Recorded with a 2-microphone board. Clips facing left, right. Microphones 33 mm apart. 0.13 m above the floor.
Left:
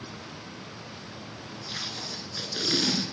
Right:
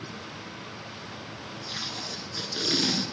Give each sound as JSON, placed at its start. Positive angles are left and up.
{"t": 1.7, "sound": "tape being pulled", "side_deg": 0, "distance_m": 1.5}